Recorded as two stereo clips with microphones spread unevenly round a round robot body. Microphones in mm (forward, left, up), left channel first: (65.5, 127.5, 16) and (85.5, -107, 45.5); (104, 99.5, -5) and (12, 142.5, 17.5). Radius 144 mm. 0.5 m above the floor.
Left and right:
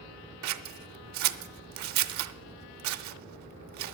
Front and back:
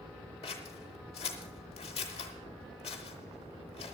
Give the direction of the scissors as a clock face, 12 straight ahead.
3 o'clock.